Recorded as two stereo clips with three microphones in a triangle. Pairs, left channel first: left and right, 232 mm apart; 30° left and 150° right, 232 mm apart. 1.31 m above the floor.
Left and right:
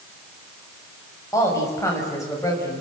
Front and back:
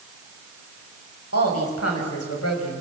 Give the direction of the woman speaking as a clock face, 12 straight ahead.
12 o'clock.